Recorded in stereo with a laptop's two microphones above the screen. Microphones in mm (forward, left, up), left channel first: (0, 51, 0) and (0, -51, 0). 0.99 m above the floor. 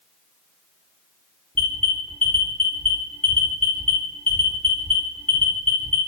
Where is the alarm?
15° left (ahead or behind), 1.2 m.